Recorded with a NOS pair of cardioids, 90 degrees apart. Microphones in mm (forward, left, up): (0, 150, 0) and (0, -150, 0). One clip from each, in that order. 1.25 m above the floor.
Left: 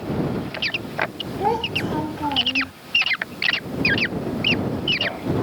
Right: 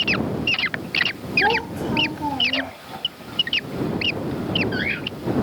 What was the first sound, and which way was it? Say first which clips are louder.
A child speaking: even; 5° left.